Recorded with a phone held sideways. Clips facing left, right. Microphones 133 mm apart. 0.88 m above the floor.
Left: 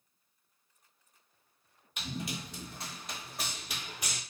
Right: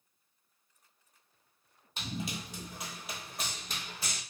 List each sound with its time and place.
2.0 s running footsteps: 30° right (ahead or behind), 1.5 m; by 4.2 s 20° left (ahead or behind), 1.3 m